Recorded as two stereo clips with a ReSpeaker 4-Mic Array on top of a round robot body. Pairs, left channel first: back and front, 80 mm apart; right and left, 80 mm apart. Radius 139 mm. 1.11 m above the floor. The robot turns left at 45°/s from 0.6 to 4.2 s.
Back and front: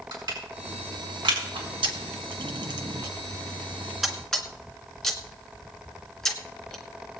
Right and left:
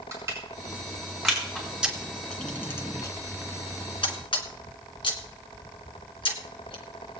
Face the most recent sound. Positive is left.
turn(degrees=-95)